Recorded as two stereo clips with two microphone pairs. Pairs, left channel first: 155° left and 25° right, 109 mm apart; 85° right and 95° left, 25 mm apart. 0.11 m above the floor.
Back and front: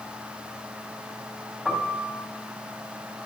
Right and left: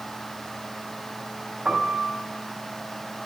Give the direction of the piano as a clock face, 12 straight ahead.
10 o'clock.